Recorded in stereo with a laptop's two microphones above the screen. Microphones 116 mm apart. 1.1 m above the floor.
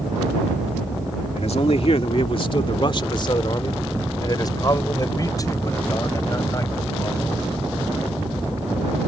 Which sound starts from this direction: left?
A man speaking, at 1.4 s.